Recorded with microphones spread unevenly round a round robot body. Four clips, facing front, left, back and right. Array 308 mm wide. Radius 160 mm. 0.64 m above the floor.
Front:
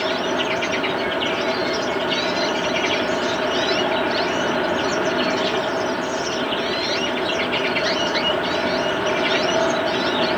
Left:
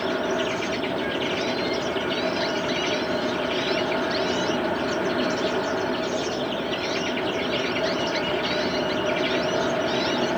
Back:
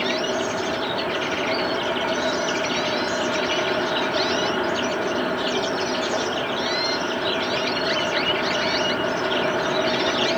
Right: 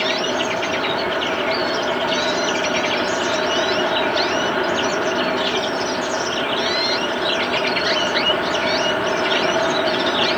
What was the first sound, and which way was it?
Only background noise.